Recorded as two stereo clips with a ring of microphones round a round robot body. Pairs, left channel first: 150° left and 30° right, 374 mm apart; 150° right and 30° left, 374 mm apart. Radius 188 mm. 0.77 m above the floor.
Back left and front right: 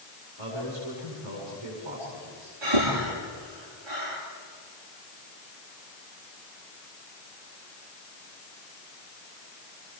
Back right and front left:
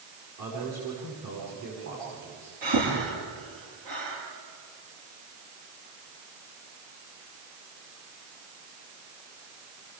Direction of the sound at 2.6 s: 10° right.